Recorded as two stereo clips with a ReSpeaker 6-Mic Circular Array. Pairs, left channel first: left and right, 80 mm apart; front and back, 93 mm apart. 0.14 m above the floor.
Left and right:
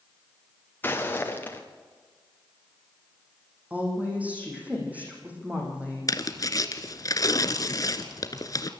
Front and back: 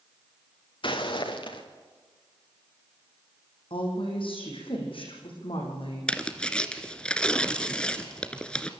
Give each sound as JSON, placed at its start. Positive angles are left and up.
{"t": 0.8, "sound": "footsteps", "azimuth_deg": 25, "distance_m": 3.0}
{"t": 3.7, "sound": "a woman speaking", "azimuth_deg": -20, "distance_m": 7.5}
{"t": 6.1, "sound": "tearing paper", "azimuth_deg": 75, "distance_m": 1.2}